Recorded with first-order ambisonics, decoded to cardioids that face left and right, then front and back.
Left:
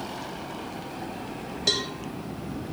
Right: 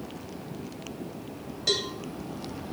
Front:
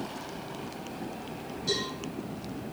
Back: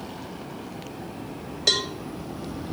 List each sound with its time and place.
1.7 s a cowbell: 160° left, 0.8 m